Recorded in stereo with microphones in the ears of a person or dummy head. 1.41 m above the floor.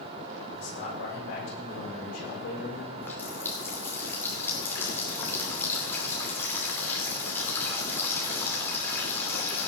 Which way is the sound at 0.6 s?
65° left (ahead or behind).